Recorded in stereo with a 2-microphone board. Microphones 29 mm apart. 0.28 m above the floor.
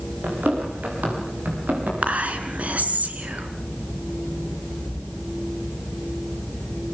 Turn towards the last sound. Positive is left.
turn(degrees=-55)  # may be behind; listen again after turning